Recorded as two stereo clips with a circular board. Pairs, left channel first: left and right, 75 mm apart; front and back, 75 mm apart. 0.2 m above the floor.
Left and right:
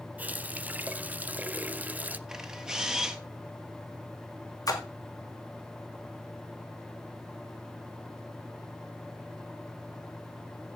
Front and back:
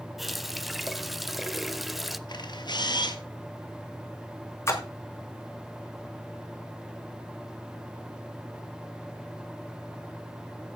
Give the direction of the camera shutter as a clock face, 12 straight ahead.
12 o'clock.